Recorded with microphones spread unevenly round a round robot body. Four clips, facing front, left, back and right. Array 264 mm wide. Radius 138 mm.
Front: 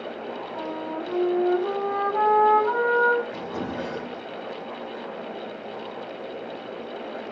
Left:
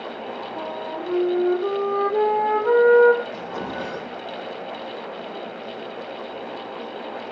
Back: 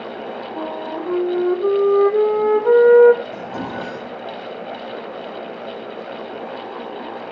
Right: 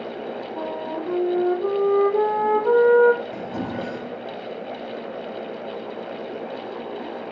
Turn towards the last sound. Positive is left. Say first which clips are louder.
# right 1 dB, back 3 dB
turn(degrees=-120)